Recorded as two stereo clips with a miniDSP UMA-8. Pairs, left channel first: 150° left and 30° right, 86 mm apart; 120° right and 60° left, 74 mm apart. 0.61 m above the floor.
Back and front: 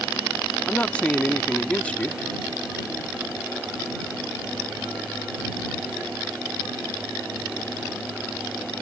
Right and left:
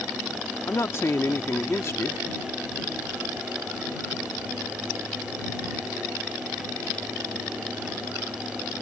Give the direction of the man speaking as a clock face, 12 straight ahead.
5 o'clock.